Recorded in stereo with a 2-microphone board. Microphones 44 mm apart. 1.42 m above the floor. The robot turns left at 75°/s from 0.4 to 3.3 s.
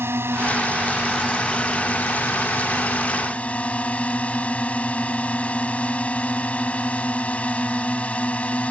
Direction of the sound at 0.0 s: 110° right.